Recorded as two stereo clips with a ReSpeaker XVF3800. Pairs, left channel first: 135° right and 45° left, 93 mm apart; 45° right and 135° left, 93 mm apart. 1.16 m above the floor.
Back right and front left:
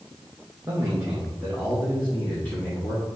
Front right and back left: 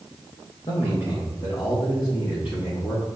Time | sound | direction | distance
0.7 | a man speaking | 15° right | 1.7 m